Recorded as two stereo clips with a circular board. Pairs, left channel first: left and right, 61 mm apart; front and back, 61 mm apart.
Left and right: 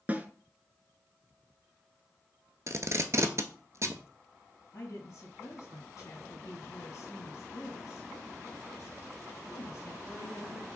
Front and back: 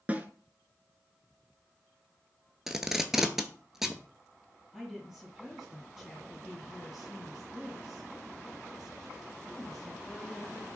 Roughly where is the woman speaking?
Left.